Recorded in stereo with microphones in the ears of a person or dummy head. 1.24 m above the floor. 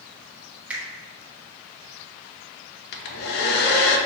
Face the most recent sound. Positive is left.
turn(degrees=60)  # may be behind; listen again after turning